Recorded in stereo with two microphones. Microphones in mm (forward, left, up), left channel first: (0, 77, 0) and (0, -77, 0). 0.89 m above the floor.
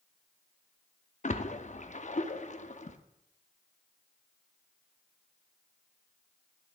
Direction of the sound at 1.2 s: 50° left (ahead or behind).